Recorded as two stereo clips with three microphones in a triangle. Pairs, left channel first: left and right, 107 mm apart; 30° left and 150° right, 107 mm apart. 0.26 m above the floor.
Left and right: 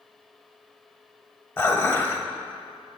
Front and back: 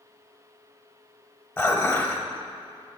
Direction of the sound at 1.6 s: 65° left.